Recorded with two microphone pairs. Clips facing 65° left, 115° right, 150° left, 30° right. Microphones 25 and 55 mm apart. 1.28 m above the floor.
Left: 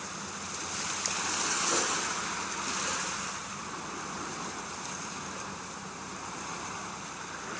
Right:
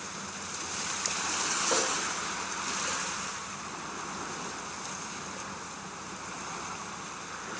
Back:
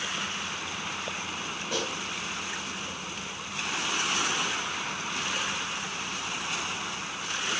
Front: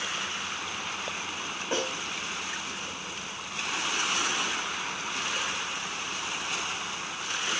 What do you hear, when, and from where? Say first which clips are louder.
1.7 s a snare drum: right 3 dB, front 2 dB; 90° right, 8 m